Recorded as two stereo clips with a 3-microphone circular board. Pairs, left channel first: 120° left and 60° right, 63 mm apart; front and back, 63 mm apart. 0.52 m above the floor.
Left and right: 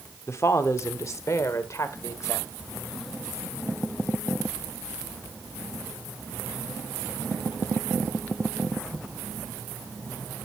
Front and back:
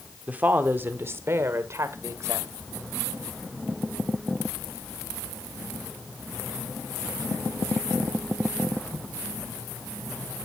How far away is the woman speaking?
About 1.1 m.